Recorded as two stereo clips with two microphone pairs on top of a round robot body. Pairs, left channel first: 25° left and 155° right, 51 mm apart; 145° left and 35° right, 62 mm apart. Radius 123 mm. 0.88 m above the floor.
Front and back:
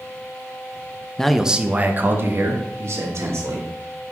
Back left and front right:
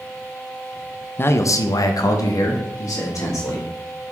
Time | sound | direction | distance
1.2 | a man speaking | 95° left | 0.9 m